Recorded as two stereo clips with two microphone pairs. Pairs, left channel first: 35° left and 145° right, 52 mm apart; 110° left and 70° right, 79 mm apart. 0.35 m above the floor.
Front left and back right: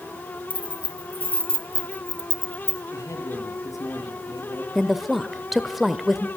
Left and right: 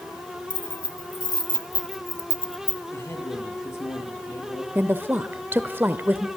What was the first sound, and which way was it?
Keys jangling, 95° left.